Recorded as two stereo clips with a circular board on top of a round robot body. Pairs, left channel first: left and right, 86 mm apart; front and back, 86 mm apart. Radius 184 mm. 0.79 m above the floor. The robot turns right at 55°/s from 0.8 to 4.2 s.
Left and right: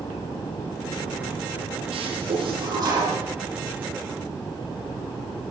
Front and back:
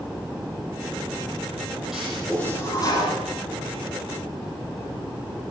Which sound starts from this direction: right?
A toilet flushing, at 1.9 s.